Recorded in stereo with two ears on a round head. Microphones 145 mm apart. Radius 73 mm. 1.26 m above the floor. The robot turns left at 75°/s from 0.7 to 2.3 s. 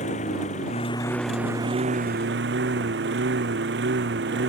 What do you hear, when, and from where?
0.0 s a lawn mower: 45° left; by 4.5 s 75° right